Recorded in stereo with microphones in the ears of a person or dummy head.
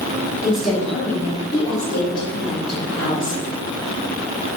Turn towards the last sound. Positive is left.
turn(degrees=40)  # may be behind; listen again after turning